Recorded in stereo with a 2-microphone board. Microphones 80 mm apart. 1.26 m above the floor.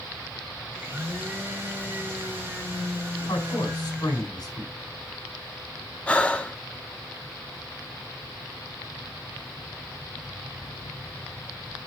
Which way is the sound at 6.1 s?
15° left (ahead or behind).